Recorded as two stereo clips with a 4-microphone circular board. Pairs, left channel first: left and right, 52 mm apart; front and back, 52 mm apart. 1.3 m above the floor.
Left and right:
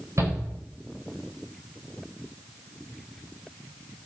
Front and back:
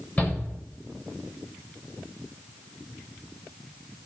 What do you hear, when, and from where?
0.2 s a shout: 65° right, 7 m